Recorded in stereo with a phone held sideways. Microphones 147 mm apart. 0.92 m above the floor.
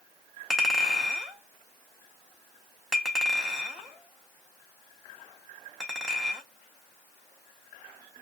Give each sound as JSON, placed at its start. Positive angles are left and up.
{"t": 0.5, "sound": "a clink", "side_deg": 0, "distance_m": 1.0}